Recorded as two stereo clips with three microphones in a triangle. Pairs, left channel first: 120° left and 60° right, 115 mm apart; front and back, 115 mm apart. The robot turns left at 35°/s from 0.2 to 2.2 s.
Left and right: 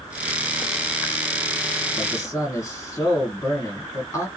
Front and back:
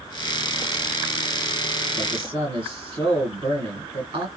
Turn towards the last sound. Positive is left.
turn(degrees=175)